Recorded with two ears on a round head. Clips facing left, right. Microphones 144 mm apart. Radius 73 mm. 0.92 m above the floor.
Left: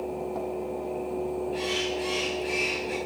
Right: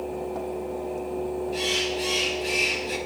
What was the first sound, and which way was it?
A bird, 55° right (ahead or behind).